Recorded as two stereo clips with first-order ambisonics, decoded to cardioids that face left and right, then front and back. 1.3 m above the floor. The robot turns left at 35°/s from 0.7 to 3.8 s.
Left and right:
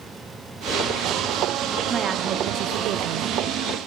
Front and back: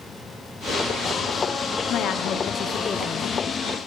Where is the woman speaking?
30° right, 0.6 m; by 3.3 s 80° right, 0.6 m.